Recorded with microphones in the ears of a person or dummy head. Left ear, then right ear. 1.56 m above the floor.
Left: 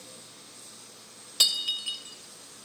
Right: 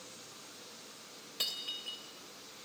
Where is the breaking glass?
30° left (ahead or behind), 3 m.